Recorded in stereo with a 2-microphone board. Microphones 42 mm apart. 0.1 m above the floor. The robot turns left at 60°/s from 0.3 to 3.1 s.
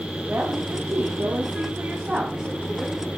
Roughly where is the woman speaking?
Ahead right.